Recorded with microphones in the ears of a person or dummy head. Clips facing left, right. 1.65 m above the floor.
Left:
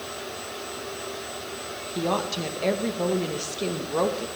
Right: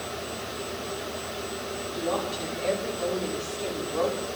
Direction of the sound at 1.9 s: 65° left (ahead or behind).